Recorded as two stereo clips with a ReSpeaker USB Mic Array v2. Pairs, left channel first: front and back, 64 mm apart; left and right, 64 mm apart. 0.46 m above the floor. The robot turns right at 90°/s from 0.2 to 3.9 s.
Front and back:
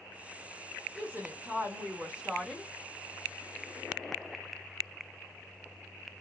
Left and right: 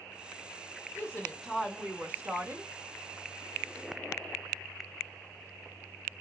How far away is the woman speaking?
About 0.9 m.